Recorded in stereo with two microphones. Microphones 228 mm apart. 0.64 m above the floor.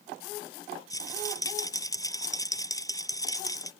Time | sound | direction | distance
0.9 | a rattle | 15° left (ahead or behind) | ?